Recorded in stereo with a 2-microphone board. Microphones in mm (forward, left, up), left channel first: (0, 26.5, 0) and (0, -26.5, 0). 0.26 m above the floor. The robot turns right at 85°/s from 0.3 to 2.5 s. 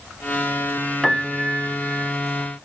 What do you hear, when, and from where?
1.0 s a piano: straight behind, 0.5 m; by 2.1 s 90° right, 0.5 m